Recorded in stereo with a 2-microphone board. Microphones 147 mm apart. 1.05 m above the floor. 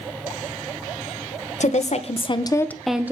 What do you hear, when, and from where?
1.6 s a woman speaking: 55° left (ahead or behind), 0.9 m; by 3.1 s 15° right (ahead or behind), 0.6 m